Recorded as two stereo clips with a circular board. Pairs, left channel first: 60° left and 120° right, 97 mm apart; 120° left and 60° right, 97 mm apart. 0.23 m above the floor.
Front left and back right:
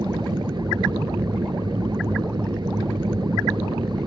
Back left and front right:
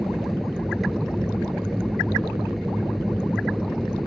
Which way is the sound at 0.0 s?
150° right.